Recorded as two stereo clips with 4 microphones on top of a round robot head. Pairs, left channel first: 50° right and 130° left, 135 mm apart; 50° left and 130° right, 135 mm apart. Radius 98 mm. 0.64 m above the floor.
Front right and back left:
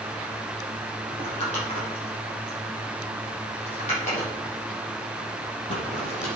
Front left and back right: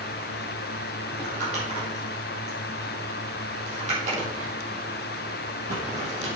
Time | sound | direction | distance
1.1 | crumpling | 95° right | 5 m